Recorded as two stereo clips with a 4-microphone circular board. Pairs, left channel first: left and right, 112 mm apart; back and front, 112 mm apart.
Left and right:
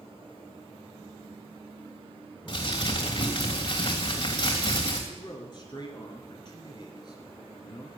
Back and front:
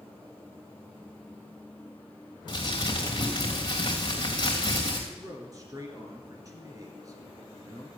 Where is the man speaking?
50° left, 2 m.